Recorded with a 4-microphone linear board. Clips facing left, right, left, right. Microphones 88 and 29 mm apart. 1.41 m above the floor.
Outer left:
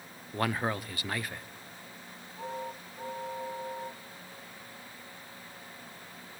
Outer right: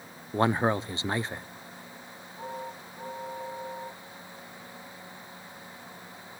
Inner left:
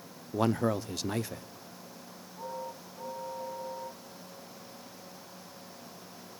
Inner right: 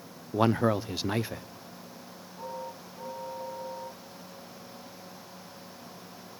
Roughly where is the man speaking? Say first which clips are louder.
Outer right 6 dB, inner right 3 dB; right.